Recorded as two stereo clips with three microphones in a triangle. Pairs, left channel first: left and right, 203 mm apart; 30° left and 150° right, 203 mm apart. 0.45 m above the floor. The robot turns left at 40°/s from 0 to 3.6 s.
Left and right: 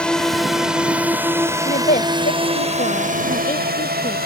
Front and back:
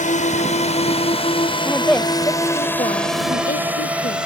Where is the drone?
10° left; by 4.3 s 65° right.